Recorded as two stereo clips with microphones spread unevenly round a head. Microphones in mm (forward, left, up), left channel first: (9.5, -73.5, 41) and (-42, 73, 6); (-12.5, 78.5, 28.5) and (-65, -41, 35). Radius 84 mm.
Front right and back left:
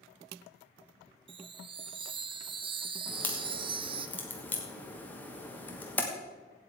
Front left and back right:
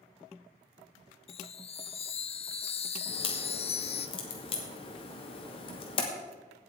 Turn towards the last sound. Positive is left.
turn(degrees=10)